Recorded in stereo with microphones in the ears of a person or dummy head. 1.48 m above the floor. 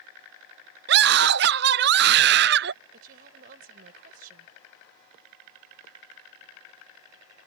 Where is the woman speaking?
45° right (ahead or behind).